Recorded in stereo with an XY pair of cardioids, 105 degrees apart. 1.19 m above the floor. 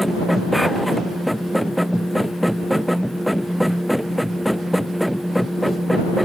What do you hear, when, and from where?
0.0 s a machine running: straight ahead